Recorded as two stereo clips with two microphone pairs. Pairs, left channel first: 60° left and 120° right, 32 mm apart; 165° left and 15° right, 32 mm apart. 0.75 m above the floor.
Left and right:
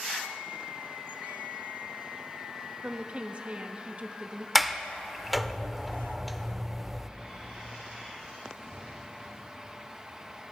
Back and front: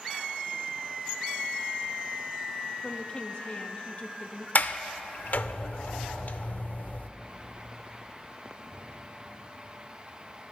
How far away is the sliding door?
About 0.6 m.